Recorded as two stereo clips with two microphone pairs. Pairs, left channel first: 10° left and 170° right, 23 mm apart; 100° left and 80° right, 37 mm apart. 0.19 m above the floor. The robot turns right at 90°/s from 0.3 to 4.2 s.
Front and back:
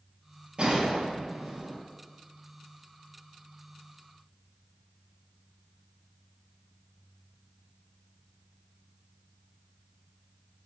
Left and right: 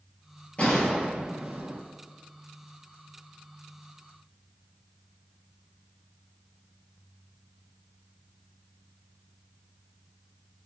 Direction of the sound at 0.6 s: 145° left.